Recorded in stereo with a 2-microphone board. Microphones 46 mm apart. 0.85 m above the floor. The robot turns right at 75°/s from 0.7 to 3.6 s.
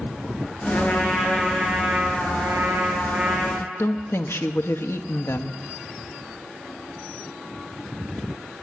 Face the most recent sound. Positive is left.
turn(degrees=65)  # may be behind; listen again after turning